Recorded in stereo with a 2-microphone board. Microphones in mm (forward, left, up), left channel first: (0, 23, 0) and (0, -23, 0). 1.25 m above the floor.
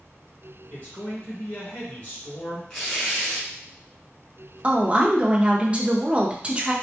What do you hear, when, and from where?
0.7 s a man speaking: 30° left (ahead or behind), 1.6 m
2.7 s tearing paper: 20° left (ahead or behind), 1.5 m
4.6 s a woman speaking: 25° right (ahead or behind), 0.7 m